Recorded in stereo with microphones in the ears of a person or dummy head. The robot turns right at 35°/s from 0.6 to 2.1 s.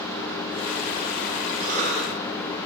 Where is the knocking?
I don't hear knocking.